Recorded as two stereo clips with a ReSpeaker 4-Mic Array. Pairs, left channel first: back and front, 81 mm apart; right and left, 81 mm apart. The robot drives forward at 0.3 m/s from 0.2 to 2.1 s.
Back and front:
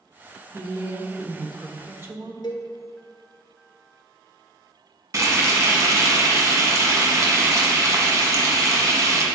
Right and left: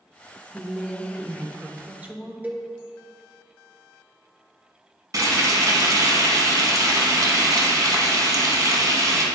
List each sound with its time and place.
0.5 s a woman speaking: 20° left, 1.2 m; by 2.3 s 35° left, 0.9 m
2.4 s a cowbell: 160° left, 1.0 m
5.1 s frying: 50° left, 1.2 m